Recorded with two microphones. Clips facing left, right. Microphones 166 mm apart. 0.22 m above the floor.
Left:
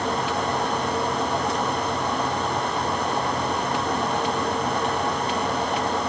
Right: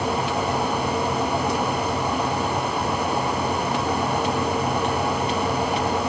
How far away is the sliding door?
I don't hear a sliding door.